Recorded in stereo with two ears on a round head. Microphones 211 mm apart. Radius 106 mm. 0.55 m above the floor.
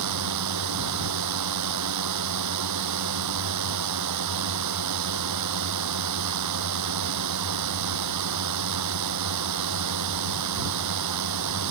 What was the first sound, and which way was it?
A drone, 85° right.